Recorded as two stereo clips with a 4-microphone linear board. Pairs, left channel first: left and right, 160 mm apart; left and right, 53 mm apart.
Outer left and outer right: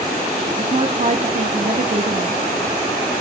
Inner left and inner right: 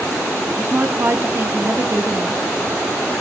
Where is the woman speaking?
45° right (ahead or behind), 1.0 m.